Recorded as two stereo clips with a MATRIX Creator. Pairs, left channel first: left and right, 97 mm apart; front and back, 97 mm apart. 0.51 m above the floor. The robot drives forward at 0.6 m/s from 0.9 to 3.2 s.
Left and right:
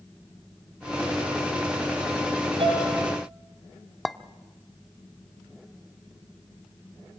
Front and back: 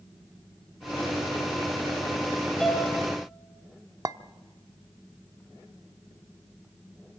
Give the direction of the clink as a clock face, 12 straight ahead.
6 o'clock.